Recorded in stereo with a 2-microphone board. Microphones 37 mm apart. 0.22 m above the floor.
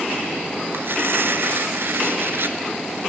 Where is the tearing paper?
60° right (ahead or behind), 1.2 m.